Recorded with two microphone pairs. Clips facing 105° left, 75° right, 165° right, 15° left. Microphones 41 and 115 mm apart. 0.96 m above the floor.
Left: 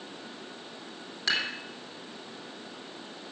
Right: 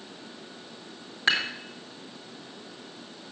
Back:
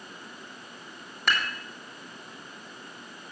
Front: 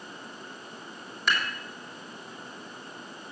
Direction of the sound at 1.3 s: 135° right.